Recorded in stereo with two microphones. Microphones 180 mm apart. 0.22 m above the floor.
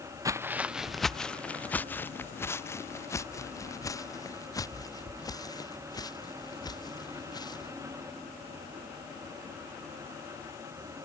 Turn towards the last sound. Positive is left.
turn(degrees=20)  # may be behind; listen again after turning